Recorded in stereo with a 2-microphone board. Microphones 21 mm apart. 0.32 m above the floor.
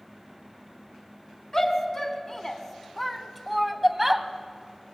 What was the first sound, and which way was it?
A shout, 35° left (ahead or behind).